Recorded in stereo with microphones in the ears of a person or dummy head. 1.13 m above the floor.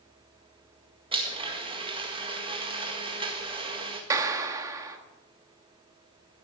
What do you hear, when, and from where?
1.1 s a blender: 25° right (ahead or behind), 1.8 m
4.1 s a clap: 20° right (ahead or behind), 1.7 m